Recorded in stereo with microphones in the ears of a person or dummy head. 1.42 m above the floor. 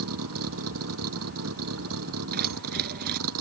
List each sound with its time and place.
0.0 s a vehicle: 85° right
2.3 s keys jangling: 55° right (ahead or behind)